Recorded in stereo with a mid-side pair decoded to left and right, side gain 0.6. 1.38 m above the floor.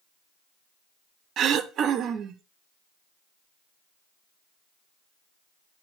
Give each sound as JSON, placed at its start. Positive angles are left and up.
{"t": 1.4, "sound": "throat clearing", "azimuth_deg": -50, "distance_m": 0.7}